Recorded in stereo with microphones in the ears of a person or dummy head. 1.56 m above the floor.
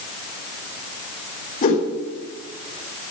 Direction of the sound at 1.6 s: 40° left (ahead or behind).